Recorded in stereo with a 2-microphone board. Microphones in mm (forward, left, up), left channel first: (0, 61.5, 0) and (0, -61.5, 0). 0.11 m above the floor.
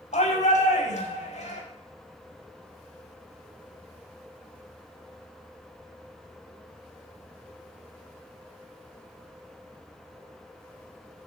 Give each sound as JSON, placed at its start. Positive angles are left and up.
{"t": 0.1, "sound": "a shout", "side_deg": 75, "distance_m": 6.0}